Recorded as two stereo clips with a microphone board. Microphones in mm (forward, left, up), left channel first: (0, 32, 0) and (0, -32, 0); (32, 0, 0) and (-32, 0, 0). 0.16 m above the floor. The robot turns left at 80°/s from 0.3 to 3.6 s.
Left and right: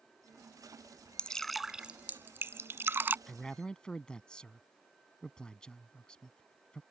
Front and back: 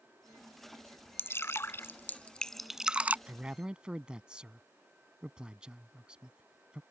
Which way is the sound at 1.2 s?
25° left.